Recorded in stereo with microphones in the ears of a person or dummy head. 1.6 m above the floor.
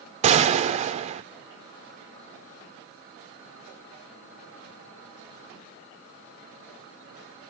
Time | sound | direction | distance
0.2 | a gunshot | 40° right (ahead or behind) | 0.5 m